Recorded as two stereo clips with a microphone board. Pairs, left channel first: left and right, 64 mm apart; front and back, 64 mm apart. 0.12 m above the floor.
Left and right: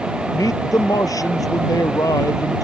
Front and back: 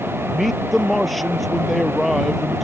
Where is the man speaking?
90° left.